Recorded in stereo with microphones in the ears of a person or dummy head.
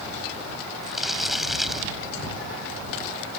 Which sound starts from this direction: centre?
Crumpling, at 0.8 s.